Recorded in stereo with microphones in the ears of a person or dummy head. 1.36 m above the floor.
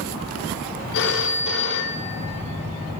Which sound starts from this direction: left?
A phone ringing, at 0.9 s.